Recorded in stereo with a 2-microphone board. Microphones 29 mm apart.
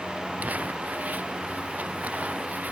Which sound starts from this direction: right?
Crumpling, at 0.4 s.